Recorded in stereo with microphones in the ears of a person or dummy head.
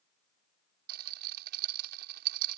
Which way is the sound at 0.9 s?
60° right (ahead or behind).